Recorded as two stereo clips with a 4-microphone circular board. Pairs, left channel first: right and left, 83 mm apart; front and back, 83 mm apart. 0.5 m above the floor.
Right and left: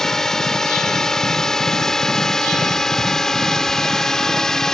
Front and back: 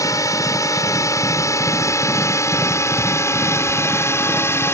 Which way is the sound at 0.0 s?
10° right.